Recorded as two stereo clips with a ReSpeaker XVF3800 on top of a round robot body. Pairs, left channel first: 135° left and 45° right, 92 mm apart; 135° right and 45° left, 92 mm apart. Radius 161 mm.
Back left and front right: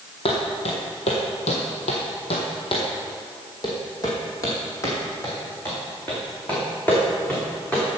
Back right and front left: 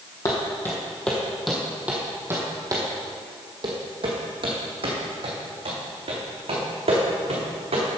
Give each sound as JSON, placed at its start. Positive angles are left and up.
{"t": 0.2, "sound": "footsteps", "azimuth_deg": 165, "distance_m": 1.5}